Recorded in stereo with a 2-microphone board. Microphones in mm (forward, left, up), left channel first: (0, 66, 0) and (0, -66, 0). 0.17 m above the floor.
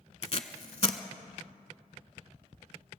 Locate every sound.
0.2 s tape being pulled: 50° left (ahead or behind), 0.7 m